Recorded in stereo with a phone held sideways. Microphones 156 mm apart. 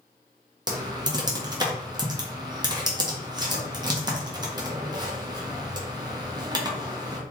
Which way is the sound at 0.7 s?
25° right (ahead or behind).